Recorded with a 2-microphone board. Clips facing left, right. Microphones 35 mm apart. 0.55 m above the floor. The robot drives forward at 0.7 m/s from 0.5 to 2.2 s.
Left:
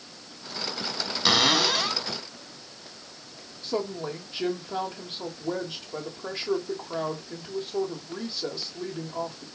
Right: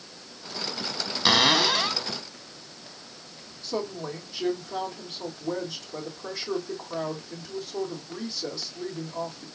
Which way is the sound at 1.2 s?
5° right (ahead or behind).